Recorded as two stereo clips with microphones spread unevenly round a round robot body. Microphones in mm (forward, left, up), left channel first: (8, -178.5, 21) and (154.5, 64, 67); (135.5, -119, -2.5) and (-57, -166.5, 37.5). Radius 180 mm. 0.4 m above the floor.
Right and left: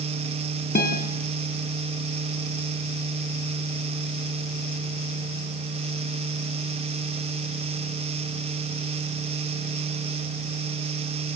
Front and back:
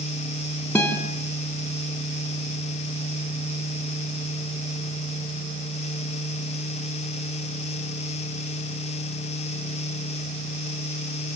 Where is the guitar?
65° right, 4.5 m.